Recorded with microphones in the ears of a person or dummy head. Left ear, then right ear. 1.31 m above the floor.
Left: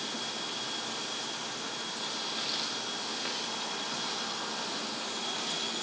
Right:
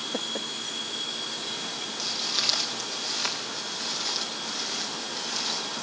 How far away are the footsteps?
About 7.5 m.